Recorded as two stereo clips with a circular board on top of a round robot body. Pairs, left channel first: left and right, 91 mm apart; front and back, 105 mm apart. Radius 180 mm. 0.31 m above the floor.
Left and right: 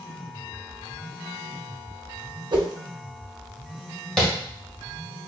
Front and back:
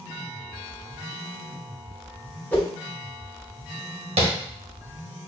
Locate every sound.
2.5 s a whoosh: 75° right, 1.4 m
4.2 s tapping: 170° left, 1.6 m